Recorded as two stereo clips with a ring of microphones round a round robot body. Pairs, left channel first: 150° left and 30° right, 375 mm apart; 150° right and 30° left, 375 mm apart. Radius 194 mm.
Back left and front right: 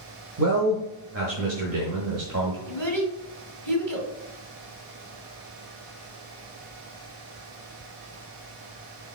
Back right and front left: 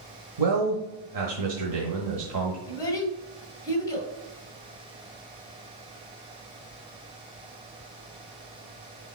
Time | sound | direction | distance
0.4 | a man speaking | 15° left | 1.4 m
2.7 | a child speaking | 70° right | 2.5 m